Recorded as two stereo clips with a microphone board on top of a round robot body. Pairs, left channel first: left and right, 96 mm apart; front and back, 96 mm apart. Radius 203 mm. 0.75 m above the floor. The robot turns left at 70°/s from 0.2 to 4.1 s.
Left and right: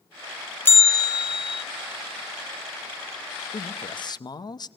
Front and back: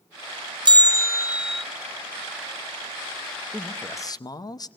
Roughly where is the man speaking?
Left.